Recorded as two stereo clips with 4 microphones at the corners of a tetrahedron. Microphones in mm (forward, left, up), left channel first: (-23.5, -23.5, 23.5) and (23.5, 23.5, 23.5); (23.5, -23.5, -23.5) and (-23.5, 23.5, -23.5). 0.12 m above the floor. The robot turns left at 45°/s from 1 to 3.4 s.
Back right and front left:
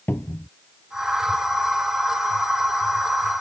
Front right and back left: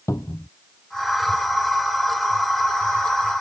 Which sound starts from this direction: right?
A cupboard door, at 0.1 s.